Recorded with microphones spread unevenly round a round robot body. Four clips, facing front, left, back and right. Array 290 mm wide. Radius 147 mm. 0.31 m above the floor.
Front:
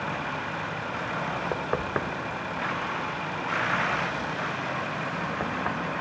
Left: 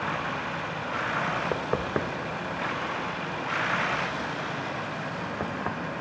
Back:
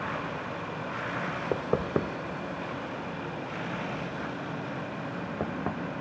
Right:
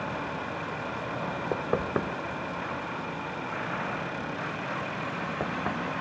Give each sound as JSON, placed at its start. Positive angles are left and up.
{"t": 1.5, "sound": "knocking", "azimuth_deg": -170, "distance_m": 0.6}